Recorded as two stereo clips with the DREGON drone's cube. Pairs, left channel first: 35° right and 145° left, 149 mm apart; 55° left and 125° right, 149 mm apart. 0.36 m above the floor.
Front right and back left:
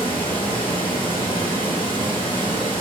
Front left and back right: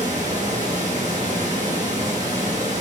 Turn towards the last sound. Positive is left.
turn(degrees=-90)